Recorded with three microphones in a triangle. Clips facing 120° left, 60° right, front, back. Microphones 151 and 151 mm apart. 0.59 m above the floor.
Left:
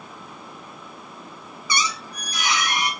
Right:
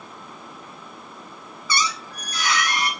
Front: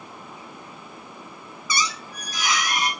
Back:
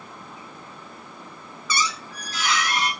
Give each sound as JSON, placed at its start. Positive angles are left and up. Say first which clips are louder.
{"t": 1.7, "sound": "a squeak", "louder": "right 1 dB, back 1 dB", "azimuth_deg": 60, "distance_m": 0.5}